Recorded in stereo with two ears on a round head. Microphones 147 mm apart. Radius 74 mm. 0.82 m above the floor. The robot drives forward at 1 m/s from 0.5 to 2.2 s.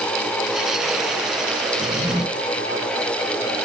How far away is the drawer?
About 2.5 m.